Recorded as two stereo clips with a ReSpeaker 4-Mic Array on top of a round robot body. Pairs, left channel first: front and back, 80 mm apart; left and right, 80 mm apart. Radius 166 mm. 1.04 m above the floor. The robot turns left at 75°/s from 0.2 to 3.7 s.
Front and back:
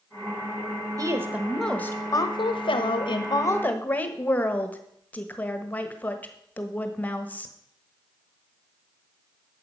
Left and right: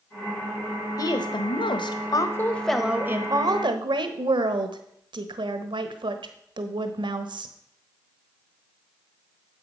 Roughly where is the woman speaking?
Behind left.